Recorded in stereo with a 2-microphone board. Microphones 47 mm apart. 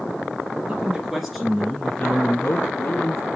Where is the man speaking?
15° right (ahead or behind), 2.5 m; by 3.2 s 60° left (ahead or behind), 2 m.